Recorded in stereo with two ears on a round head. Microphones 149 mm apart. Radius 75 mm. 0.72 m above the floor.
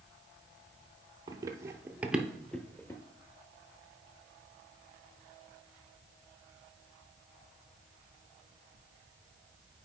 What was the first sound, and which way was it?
Running footsteps, 25° right (ahead or behind).